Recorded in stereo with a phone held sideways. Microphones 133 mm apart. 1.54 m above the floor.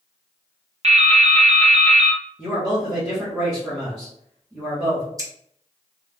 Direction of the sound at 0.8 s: 50° right (ahead or behind).